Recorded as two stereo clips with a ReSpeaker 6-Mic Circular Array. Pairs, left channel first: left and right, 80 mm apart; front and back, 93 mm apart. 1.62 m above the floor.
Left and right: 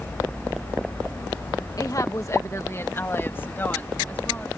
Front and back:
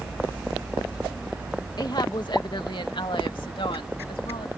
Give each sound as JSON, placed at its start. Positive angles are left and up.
{"t": 1.8, "sound": "a woman speaking", "azimuth_deg": 45}